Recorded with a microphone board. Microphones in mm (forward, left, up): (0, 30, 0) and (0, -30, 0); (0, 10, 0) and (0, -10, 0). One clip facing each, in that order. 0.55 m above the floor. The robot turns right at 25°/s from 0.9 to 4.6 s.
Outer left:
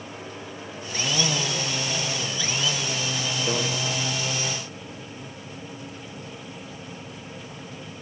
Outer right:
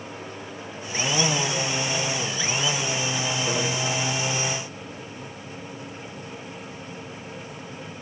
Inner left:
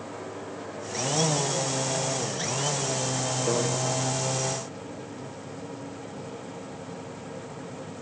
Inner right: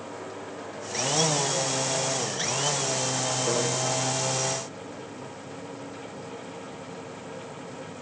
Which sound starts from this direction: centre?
A microwave, at 3.5 s.